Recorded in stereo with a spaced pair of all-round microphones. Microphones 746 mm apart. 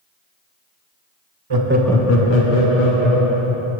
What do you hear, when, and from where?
1.5 s laughter: 35° right (ahead or behind), 0.7 m; by 3.7 s 70° left (ahead or behind), 2 m